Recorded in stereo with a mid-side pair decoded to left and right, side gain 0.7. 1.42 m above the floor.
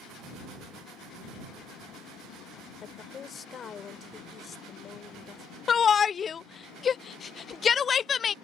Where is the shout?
35° left.